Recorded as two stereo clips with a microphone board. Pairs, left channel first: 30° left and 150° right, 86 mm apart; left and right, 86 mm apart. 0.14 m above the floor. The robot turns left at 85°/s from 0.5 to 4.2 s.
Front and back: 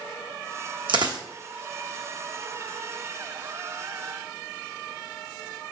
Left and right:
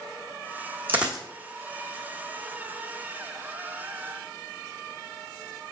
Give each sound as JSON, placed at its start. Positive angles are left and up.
{"t": 0.9, "sound": "a dropped coin", "azimuth_deg": -155, "distance_m": 0.9}